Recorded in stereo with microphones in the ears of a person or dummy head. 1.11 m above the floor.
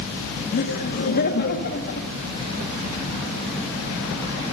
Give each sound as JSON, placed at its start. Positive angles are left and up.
{"t": 0.5, "sound": "laughter", "side_deg": 55, "distance_m": 1.3}